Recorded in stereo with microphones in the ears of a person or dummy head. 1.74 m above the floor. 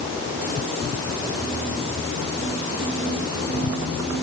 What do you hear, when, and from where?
Only background noise.